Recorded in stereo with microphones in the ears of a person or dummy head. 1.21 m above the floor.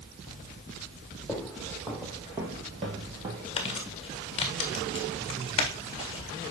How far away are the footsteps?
About 2 m.